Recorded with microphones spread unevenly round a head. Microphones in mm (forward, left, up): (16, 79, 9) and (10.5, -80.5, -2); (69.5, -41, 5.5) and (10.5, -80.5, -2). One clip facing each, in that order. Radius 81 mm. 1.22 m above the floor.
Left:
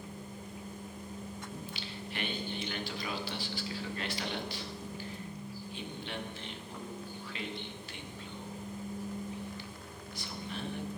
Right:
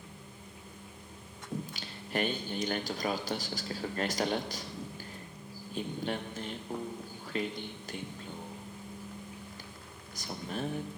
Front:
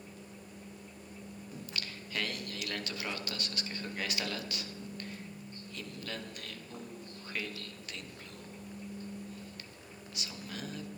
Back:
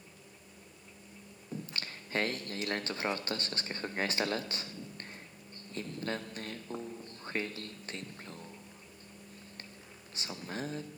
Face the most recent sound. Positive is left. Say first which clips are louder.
# right 3 dB, back 4 dB
turn(degrees=-110)